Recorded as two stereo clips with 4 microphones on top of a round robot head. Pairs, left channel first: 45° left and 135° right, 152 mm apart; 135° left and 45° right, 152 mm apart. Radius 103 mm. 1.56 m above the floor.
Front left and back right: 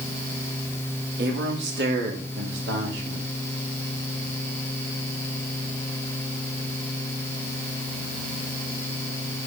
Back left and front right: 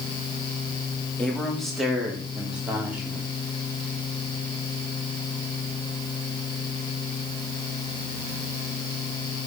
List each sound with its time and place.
1.2 s a man speaking: 140° right, 2.5 m; by 3.2 s 120° right, 3.5 m